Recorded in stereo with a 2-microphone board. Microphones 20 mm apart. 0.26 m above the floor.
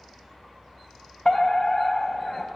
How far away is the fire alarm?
About 3 m.